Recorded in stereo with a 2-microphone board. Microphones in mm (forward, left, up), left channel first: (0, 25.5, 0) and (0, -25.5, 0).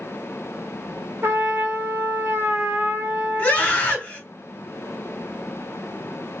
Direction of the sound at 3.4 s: 30° left (ahead or behind).